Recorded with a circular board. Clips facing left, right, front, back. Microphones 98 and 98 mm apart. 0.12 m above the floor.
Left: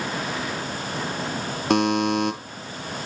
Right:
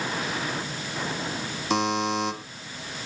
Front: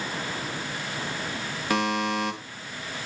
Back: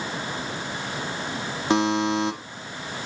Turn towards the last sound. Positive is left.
turn(degrees=115)